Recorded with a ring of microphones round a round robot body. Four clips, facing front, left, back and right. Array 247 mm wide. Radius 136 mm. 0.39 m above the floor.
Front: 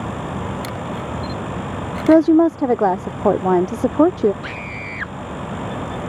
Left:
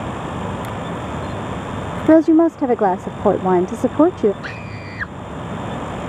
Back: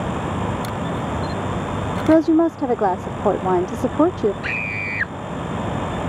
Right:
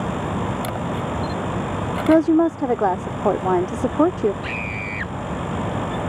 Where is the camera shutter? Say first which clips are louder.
Right 1 dB, back 2 dB; 80° right.